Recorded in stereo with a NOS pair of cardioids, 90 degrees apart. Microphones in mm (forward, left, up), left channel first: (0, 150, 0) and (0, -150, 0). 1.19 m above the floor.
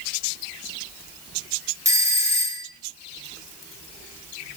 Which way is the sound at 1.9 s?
10° right.